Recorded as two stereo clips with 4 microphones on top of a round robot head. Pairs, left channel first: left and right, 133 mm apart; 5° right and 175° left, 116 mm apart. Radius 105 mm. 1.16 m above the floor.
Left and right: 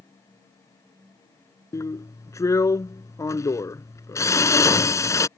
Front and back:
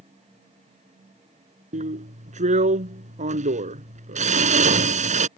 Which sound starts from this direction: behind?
A drill, at 1.7 s.